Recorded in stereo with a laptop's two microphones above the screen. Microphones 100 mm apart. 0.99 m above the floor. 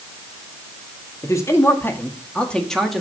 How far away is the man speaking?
About 2 m.